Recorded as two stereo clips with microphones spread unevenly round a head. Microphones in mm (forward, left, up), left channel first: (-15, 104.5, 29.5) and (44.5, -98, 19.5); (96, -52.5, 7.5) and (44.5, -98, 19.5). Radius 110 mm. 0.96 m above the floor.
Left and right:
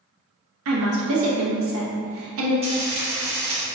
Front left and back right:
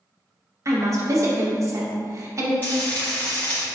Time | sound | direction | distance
0.7 | a woman speaking | 90° right | 1.1 m
2.6 | frying | 15° right | 1.5 m